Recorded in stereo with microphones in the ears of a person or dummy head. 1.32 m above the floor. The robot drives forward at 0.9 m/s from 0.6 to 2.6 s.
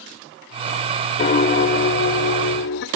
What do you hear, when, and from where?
1.2 s a piano: 45° left (ahead or behind), 1.9 m; by 2.9 s 60° left (ahead or behind), 1.5 m